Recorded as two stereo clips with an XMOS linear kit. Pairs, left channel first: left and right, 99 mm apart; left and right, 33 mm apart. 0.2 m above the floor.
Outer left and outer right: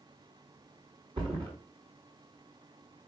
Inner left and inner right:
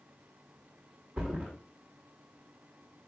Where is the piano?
No piano in this recording.